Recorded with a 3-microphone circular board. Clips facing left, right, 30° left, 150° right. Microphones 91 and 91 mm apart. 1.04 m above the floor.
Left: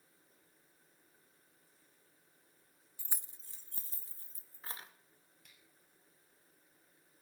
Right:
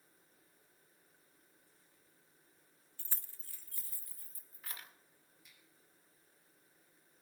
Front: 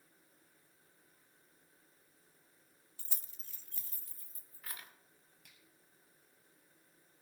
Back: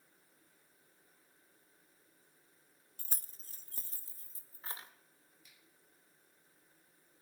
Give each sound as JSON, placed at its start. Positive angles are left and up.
{"t": 3.0, "sound": "keys jangling", "azimuth_deg": 170, "distance_m": 0.6}
{"t": 5.4, "sound": "a finger snap", "azimuth_deg": 60, "distance_m": 6.0}